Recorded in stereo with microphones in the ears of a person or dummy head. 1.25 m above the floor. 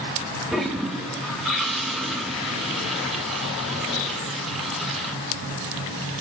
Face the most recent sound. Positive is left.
turn(degrees=0)  # may be behind; listen again after turning